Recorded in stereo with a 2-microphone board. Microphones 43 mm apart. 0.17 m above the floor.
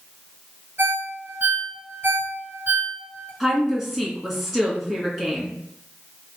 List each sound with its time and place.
0.8 s a ringtone: 50° right (ahead or behind), 1.5 m
3.4 s a woman speaking: centre (ahead or behind), 1.8 m